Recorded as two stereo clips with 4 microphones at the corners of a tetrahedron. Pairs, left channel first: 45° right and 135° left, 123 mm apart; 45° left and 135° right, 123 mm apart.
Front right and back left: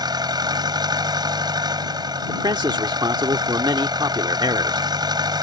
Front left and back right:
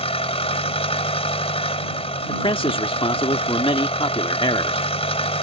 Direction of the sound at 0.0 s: 80° left.